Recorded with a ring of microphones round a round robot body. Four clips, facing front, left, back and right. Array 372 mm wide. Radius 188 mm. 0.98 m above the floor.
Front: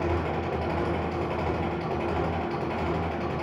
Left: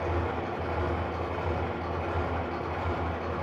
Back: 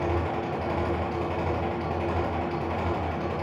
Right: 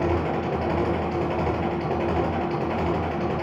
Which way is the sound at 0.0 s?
85° right.